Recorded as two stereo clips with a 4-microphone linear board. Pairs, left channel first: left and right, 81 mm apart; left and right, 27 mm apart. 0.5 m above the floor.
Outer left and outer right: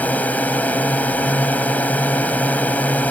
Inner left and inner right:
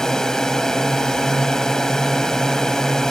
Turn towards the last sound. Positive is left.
turn(degrees=20)  # may be behind; listen again after turning